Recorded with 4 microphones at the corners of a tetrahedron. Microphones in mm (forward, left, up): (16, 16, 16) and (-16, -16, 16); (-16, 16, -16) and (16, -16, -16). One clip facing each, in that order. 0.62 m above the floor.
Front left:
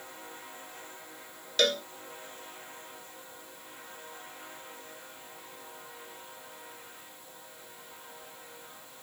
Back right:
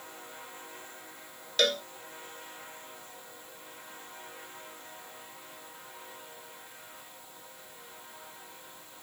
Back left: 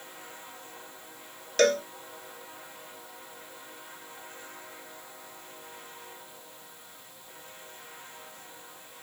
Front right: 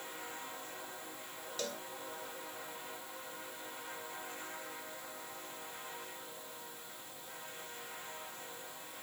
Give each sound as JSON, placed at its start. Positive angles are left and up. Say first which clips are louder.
{"t": 1.6, "sound": "a cowbell", "louder": "even, back left 20 dB", "azimuth_deg": 135}